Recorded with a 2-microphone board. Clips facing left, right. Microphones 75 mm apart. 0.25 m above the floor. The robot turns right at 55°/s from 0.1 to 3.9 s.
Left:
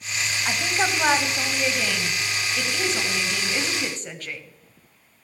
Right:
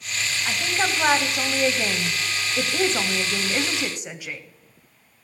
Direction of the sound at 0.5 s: 150° left.